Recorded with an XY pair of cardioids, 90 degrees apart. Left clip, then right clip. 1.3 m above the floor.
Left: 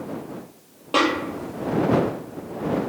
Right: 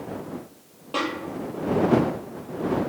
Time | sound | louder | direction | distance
0.9 | a snare drum | left 7 dB | 55° left | ?